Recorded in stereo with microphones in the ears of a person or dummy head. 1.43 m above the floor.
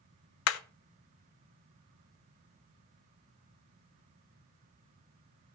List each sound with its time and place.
0.5 s hammering: 75° left (ahead or behind), 0.5 m